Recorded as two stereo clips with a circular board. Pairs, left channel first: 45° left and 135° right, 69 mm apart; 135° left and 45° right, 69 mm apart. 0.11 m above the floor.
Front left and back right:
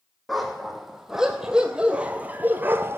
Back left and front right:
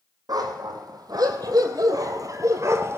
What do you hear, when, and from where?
0.3 s a dog barking: 45° right, 1.9 m; by 3.0 s 90° right, 1.0 m